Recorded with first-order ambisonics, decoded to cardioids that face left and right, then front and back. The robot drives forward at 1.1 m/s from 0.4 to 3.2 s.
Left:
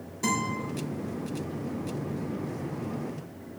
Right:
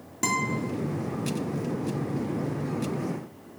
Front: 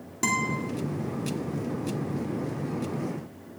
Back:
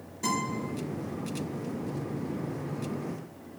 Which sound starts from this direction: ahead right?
A guitar, at 0.2 s.